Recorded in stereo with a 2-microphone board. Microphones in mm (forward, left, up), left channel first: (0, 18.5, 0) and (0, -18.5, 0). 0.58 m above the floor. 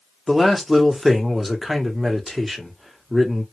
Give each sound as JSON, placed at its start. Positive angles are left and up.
{"t": 0.3, "sound": "a man speaking", "side_deg": -5, "distance_m": 0.9}